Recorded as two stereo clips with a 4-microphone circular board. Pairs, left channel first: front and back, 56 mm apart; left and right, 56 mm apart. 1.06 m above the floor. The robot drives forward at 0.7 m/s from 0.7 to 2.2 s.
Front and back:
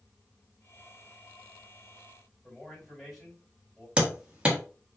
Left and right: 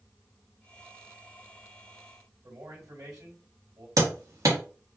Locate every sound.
2.4 s a man speaking: 85° right, 3 m
4.0 s hammering: 105° right, 1.3 m